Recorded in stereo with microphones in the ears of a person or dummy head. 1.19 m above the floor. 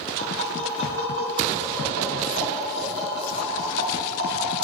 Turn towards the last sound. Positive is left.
turn(degrees=-60)  # may be behind; listen again after turning